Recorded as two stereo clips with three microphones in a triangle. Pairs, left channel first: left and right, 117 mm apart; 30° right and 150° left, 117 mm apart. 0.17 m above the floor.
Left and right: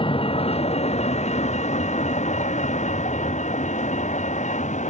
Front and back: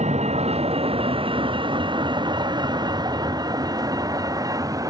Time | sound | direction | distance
0.0 | a vehicle | 130° left | ?